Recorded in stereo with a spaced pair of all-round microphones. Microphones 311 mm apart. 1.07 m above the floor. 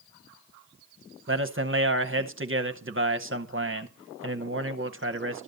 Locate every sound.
1.3 s a man speaking: 40° right (ahead or behind), 0.9 m